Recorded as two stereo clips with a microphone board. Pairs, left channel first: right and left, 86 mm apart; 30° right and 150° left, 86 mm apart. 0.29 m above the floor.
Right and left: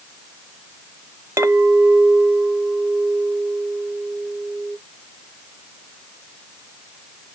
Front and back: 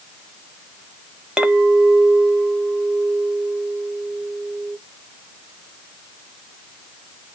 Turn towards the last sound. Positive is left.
turn(degrees=75)